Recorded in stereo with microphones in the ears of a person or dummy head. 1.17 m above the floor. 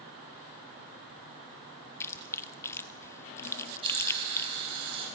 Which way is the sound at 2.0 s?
15° left (ahead or behind).